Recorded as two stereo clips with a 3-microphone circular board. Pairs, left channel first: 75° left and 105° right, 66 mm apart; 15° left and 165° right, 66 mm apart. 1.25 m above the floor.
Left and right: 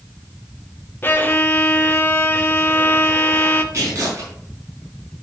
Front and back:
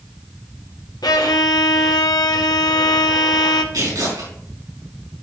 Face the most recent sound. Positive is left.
turn(degrees=-150)